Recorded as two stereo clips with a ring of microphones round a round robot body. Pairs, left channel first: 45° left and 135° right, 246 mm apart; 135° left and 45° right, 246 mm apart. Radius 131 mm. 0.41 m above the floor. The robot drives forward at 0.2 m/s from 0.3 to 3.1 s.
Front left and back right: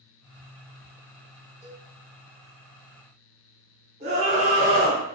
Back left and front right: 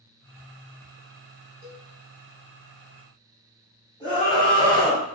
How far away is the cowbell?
About 1.5 m.